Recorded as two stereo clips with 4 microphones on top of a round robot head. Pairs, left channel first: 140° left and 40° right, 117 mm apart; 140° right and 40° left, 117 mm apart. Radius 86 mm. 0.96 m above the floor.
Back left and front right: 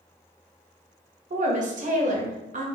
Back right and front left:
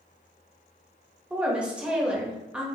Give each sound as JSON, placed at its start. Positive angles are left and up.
{"t": 1.3, "sound": "a woman speaking", "azimuth_deg": -40, "distance_m": 1.3}